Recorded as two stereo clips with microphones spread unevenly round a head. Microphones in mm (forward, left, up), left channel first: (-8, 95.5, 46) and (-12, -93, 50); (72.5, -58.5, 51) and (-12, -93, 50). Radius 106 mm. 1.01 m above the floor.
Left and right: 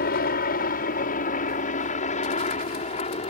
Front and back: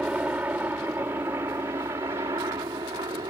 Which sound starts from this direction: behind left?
A helicopter, at 0.0 s.